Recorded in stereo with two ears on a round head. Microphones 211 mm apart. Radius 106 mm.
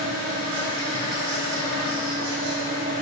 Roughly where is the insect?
Right.